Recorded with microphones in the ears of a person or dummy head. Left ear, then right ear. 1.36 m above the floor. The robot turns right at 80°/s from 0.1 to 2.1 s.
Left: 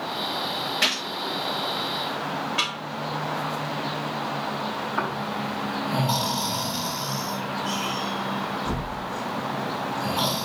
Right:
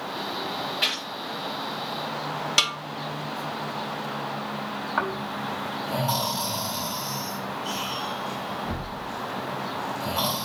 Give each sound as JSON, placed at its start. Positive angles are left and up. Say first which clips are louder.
{"t": 0.8, "sound": "a gunshot", "louder": "left 2 dB", "side_deg": 35, "distance_m": 5.0}
{"t": 2.6, "sound": "a snare drum", "louder": "right 5 dB", "side_deg": -85, "distance_m": 1.8}
{"t": 5.0, "sound": "snoring", "louder": "right 2 dB", "side_deg": -45, "distance_m": 3.5}